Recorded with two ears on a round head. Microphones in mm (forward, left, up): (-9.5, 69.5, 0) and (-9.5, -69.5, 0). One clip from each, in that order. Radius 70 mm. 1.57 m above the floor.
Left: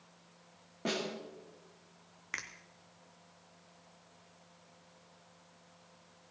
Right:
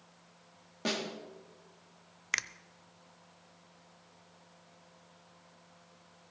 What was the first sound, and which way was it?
A snare drum, 85° right.